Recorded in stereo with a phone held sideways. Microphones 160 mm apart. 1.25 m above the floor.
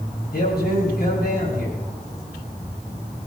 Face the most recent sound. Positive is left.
turn(degrees=75)  # may be behind; listen again after turning